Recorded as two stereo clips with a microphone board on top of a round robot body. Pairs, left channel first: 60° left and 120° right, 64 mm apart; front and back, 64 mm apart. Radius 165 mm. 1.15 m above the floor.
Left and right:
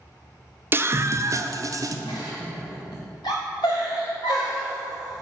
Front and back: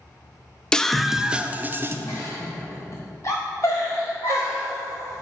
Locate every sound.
0.7 s a scream: 75° right, 0.8 m; by 2.0 s 135° right, 1.0 m
2.1 s a giggle: 50° left, 0.9 m